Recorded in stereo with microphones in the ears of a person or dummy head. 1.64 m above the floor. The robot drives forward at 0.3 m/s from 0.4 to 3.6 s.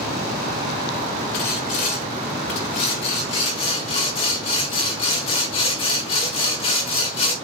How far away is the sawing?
About 1.5 m.